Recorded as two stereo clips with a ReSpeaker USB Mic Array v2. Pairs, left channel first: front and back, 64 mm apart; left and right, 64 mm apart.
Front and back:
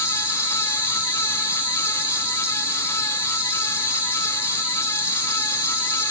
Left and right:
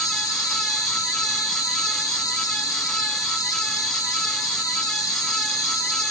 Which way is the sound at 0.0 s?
110° left.